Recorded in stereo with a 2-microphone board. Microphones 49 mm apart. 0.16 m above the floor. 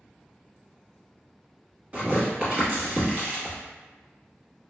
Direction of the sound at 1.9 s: 35° right (ahead or behind).